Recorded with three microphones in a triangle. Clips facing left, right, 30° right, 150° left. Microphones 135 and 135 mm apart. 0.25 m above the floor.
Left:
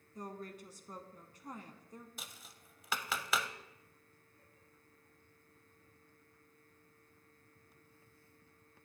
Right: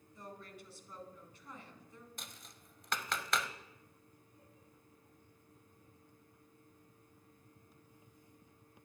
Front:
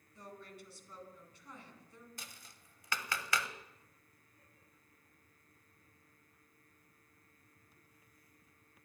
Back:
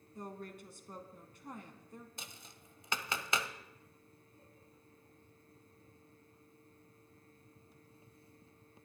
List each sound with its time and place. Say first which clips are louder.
0.1 s a woman speaking: left 5 dB, back 5 dB; 125° left, 1.8 m
2.2 s tapping: even, back 2 dB; 170° left, 0.8 m